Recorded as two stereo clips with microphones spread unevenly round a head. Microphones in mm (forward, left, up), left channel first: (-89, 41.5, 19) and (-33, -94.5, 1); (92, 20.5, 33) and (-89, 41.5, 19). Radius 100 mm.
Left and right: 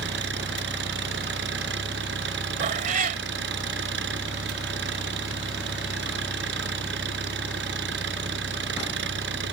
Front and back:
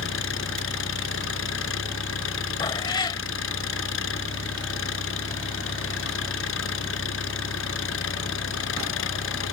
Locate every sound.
0.0 s an engine running: 35° right
2.6 s a cat meowing: 65° right